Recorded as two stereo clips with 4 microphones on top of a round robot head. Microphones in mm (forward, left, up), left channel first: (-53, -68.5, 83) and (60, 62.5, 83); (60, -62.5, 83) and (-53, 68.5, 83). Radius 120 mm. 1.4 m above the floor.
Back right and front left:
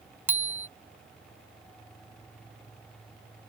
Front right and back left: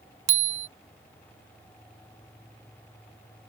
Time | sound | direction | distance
0.3 | a bicycle bell | 130° left | ?